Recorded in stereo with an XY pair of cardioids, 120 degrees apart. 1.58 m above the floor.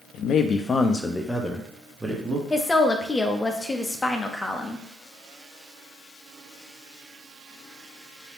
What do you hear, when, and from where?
0.1 s a man speaking: 65° left, 0.6 m; by 2.4 s 15° right, 1.2 m
2.5 s a woman speaking: 20° left, 0.7 m